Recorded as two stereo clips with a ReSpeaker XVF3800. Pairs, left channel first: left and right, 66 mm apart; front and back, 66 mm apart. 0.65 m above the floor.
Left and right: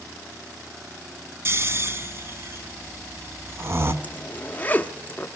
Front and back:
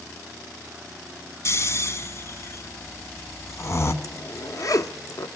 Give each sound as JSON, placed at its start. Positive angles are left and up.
{"t": 1.4, "sound": "snoring", "azimuth_deg": -45, "distance_m": 1.1}
{"t": 4.0, "sound": "a zipper", "azimuth_deg": 25, "distance_m": 0.7}